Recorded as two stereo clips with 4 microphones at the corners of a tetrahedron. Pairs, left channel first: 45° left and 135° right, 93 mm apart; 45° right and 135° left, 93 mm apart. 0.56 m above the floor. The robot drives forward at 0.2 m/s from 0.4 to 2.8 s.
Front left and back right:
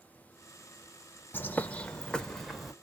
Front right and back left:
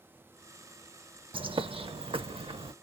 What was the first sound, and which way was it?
A bird, 115° left.